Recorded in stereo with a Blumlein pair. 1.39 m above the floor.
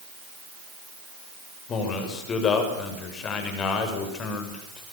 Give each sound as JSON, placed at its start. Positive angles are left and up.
{"t": 1.7, "sound": "a man speaking", "azimuth_deg": 25, "distance_m": 6.0}